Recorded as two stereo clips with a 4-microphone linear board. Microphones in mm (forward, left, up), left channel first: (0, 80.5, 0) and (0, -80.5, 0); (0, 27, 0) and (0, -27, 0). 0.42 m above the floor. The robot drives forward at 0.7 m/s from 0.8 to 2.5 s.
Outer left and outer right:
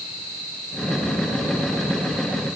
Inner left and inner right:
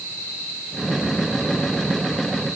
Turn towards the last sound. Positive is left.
No sound to turn to.